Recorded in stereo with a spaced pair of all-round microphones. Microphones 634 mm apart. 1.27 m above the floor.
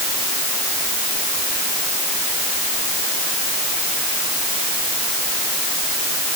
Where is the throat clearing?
I don't hear throat clearing.